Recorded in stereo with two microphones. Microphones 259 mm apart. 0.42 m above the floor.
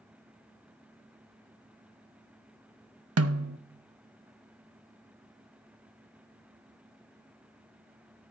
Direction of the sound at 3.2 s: 65° right (ahead or behind).